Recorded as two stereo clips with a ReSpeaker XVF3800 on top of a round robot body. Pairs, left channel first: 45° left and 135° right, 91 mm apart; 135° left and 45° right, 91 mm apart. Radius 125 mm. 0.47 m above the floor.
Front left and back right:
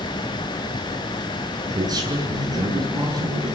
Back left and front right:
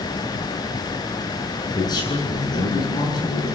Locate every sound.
1.7 s a man speaking: straight behind, 7.5 m